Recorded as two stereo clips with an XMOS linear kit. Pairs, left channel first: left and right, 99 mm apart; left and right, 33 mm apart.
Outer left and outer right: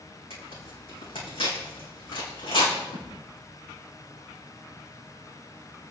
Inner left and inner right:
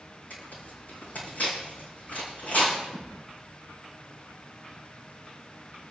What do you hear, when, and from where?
0.3 s tearing paper: 65° left (ahead or behind), 6.5 m
2.9 s a thud: 75° left (ahead or behind), 6 m